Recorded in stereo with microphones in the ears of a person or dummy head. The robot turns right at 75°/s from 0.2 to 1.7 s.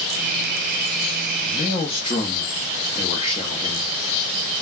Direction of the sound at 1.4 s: 40° left (ahead or behind).